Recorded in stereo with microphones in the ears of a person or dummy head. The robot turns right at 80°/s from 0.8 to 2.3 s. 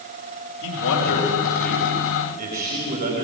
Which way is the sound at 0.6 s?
105° left.